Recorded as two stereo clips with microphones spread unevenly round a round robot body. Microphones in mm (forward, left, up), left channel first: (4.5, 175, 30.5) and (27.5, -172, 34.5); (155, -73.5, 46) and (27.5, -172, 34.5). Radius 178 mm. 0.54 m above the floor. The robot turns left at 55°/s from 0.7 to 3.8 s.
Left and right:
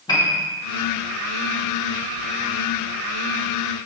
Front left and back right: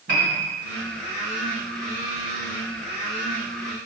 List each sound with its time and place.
0.1 s a piano: 170° left, 2.5 m